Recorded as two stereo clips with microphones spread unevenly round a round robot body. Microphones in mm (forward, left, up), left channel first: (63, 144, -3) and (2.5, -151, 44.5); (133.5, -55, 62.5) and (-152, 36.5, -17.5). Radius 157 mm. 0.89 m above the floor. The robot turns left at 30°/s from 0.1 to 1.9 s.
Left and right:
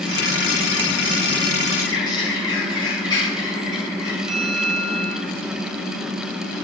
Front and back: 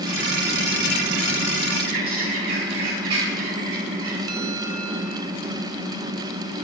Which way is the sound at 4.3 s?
Straight behind.